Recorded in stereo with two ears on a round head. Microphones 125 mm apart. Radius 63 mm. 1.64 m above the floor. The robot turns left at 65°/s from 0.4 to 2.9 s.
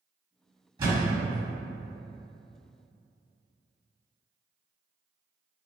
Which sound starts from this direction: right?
A thud, at 0.8 s.